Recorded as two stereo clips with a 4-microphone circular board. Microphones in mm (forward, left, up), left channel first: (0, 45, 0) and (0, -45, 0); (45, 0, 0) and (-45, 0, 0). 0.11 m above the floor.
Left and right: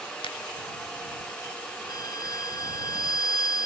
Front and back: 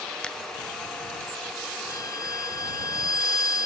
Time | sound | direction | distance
0.2 | a finger snap | 80° left | ?
1.9 | a violin | 45° left | ?